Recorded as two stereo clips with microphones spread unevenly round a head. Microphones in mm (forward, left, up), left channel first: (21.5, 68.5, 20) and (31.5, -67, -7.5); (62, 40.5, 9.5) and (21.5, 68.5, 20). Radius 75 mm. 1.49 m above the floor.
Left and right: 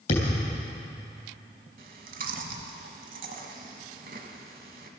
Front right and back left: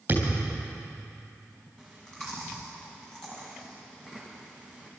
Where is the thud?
110° left, 3 m.